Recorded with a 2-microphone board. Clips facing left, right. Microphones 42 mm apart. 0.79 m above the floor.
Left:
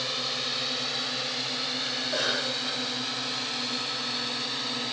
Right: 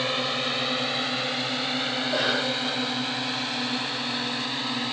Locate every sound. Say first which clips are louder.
0.0 s a drone: right 5 dB; 35° right (ahead or behind); by 4.9 s 25° right (ahead or behind)
2.0 s a cough: right 3 dB; 10° right (ahead or behind)